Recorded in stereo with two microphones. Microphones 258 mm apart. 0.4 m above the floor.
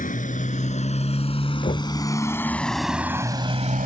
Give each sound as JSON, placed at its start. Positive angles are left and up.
{"t": 0.0, "sound": "a motorcycle", "side_deg": 30}
{"t": 1.6, "sound": "knocking", "side_deg": 30}